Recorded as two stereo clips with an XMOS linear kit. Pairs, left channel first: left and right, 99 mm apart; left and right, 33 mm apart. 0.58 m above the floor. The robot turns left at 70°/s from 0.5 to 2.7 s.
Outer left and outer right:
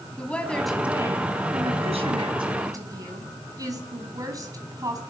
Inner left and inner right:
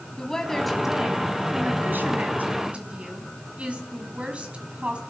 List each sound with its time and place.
0.2 s a woman speaking: 10° left, 5 m; by 5.0 s 140° right, 5 m